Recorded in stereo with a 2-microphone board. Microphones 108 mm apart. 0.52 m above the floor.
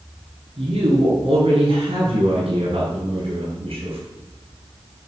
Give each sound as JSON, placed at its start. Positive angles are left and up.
{"t": 0.6, "sound": "a woman speaking", "side_deg": -80, "distance_m": 6.0}